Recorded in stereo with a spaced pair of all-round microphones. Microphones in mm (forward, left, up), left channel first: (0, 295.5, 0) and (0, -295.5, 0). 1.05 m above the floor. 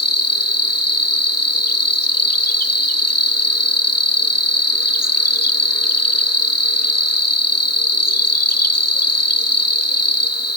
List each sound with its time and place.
0.0 s an insect: 25° left (ahead or behind), 1.1 m